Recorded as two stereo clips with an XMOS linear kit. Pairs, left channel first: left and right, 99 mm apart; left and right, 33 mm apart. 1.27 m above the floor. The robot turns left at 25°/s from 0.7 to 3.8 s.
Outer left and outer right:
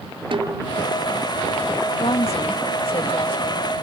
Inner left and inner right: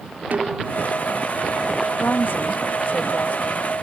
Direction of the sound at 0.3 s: 60° right (ahead or behind).